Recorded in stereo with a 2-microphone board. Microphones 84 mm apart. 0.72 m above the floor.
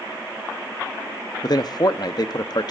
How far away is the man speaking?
About 0.7 m.